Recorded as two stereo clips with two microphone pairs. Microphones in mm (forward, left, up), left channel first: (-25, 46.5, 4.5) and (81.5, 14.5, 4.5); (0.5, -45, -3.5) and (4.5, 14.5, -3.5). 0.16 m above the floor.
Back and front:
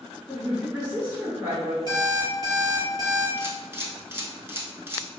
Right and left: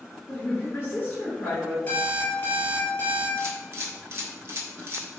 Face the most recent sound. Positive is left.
turn(degrees=50)